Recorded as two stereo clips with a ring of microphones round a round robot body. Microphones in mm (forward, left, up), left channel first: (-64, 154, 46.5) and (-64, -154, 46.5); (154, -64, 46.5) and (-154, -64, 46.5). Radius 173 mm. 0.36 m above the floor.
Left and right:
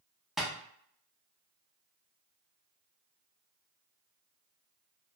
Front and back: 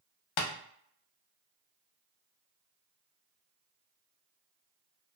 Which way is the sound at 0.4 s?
Straight ahead.